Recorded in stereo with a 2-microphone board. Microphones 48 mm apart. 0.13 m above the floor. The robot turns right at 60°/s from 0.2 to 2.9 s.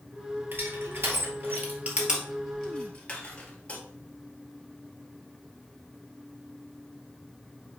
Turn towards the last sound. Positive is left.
turn(degrees=25)  # may be behind; listen again after turning